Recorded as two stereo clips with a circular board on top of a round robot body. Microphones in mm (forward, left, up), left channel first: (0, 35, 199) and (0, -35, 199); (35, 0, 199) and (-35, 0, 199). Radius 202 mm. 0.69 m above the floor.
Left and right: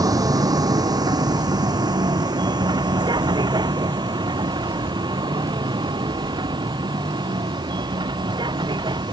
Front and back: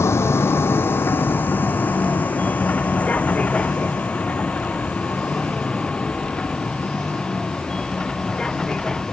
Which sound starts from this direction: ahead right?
A vehicle, at 0.0 s.